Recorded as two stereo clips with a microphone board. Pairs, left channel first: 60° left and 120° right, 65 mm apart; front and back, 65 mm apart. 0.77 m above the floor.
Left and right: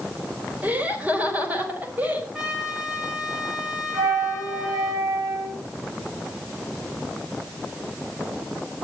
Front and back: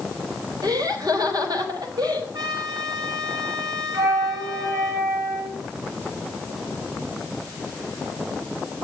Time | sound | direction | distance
0.6 | laughter | straight behind | 4 m
2.3 | a trumpet | 160° left | 4 m
3.9 | a flute | 135° right | 5.5 m